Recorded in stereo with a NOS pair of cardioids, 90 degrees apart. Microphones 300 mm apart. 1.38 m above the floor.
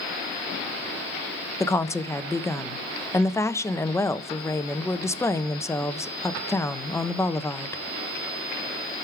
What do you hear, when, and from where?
1.6 s a woman speaking: 10° left, 1.0 m